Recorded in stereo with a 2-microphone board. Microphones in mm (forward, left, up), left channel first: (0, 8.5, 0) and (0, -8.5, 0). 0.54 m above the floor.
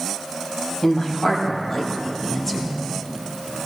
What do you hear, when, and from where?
0.8 s a woman speaking: 35° left (ahead or behind), 3.5 m; by 2.8 s 20° left (ahead or behind), 2.5 m